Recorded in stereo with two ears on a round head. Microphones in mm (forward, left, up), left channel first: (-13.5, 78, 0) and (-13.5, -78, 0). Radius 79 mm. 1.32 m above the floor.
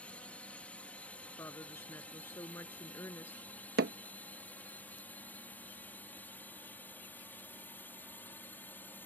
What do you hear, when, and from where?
0.0 s a drone: 10° left (ahead or behind)
1.4 s a woman speaking: 15° left (ahead or behind)
3.8 s hammering: 65° right (ahead or behind)